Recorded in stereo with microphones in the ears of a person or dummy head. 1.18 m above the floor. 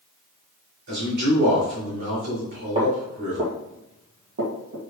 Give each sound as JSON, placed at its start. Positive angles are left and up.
{"t": 0.9, "sound": "a man speaking", "side_deg": -65, "distance_m": 2.5}
{"t": 2.8, "sound": "footsteps", "side_deg": -30, "distance_m": 1.6}